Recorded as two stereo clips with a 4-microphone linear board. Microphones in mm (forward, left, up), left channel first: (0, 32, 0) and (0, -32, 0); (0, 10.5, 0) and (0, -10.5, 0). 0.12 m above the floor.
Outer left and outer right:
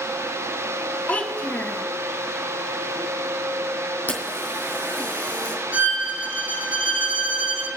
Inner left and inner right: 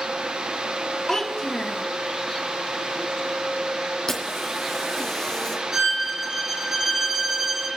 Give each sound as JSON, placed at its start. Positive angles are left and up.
{"t": 1.1, "sound": "a child speaking", "side_deg": 25, "distance_m": 1.2}
{"t": 4.1, "sound": "a camera shutter", "side_deg": 25, "distance_m": 3.5}
{"t": 5.7, "sound": "a violin", "side_deg": -25, "distance_m": 1.3}